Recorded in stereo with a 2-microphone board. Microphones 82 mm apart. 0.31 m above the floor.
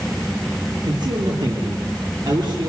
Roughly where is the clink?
I don't hear a clink.